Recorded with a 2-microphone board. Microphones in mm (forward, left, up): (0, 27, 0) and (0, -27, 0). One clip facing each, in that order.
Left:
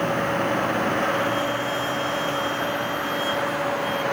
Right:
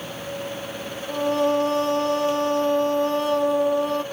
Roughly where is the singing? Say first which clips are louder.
Right 2 dB; right.